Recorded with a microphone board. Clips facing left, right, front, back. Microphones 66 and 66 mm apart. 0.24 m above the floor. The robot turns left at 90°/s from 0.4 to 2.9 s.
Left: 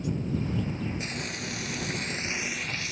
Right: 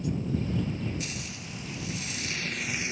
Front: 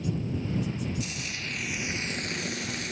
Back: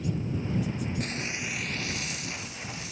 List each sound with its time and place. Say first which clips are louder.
1.0 s frying: left 4 dB, back 3 dB; 145° left; by 2.9 s 25° right